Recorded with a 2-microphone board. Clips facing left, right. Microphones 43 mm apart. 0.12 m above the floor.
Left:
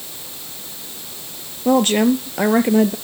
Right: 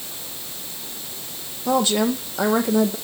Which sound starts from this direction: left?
A woman speaking, at 1.6 s.